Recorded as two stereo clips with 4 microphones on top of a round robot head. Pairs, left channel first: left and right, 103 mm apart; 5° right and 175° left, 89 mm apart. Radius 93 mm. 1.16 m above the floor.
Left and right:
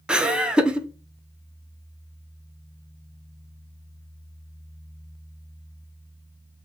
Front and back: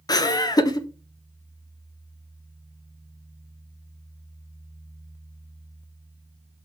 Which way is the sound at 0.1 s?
15° right.